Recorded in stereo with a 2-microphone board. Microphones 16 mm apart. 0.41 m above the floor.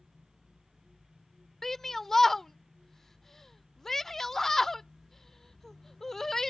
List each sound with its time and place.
1.6 s a shout: 20° left (ahead or behind)